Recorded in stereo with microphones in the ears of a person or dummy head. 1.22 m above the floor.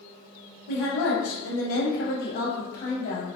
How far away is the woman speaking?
About 1.0 m.